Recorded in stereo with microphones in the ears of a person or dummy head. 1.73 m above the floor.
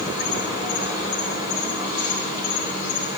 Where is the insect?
20° right (ahead or behind), 3.5 m.